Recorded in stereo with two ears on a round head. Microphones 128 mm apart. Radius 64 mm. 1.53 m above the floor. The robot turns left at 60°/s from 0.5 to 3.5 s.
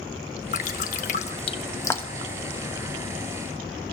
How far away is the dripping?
About 1.1 m.